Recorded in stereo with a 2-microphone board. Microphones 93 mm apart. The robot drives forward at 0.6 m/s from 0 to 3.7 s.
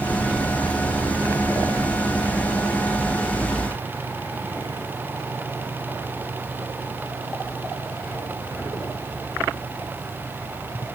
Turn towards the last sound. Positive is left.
No sound to turn to.